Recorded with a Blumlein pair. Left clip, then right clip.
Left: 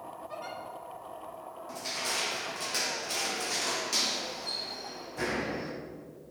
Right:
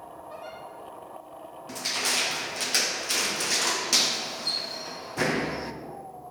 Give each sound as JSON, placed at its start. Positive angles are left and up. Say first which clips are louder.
{"t": 0.3, "sound": "a giggle", "louder": "even", "azimuth_deg": 25, "distance_m": 3.0}
{"t": 1.7, "sound": "crushing", "louder": "right 6 dB", "azimuth_deg": -65, "distance_m": 1.0}